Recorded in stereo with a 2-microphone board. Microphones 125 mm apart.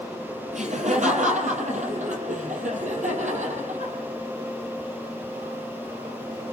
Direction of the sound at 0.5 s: 75° right (ahead or behind).